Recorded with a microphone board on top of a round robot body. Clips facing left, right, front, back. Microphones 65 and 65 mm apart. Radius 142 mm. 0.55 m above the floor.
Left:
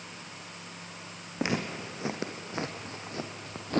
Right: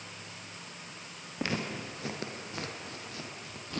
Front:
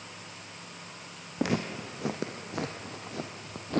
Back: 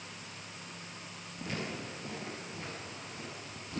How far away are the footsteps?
About 2 m.